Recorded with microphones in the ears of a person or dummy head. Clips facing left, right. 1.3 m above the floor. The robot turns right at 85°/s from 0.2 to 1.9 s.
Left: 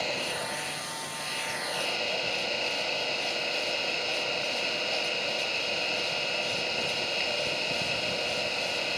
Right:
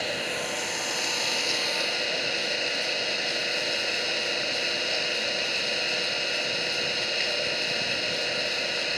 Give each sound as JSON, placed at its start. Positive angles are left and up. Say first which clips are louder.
{"t": 0.0, "sound": "an engine running", "louder": "right 2 dB", "azimuth_deg": -165}